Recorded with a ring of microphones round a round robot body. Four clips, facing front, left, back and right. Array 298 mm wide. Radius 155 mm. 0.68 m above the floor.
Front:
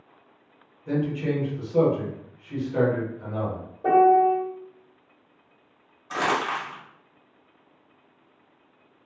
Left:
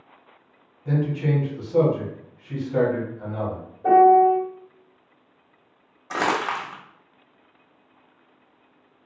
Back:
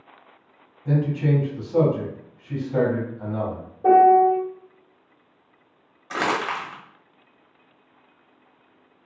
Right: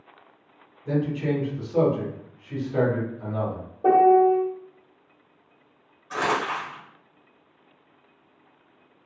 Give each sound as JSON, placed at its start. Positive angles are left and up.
{"t": 0.8, "sound": "a man speaking", "azimuth_deg": 160, "distance_m": 1.4}
{"t": 3.8, "sound": "a piano", "azimuth_deg": -115, "distance_m": 1.6}
{"t": 6.1, "sound": "crumpling", "azimuth_deg": 105, "distance_m": 0.7}